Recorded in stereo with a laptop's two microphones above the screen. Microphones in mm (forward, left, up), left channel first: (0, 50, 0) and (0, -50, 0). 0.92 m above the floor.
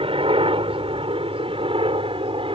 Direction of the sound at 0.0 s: 60° right (ahead or behind).